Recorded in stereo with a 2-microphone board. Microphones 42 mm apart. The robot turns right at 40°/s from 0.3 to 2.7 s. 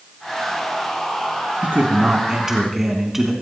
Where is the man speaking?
55° right, 2.5 m; by 3.3 s 10° right, 2.5 m.